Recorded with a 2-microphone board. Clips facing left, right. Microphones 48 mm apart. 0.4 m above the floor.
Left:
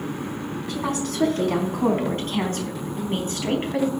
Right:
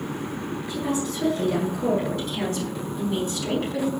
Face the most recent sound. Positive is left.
turn(degrees=35)  # may be behind; listen again after turning